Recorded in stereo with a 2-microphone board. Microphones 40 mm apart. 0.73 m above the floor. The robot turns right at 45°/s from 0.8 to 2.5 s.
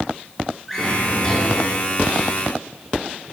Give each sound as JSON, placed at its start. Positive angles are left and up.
{"t": 0.7, "sound": "a drawer", "azimuth_deg": 0, "distance_m": 5.0}